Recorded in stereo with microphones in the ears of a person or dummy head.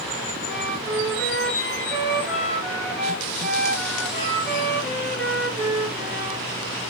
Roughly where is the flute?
Centre.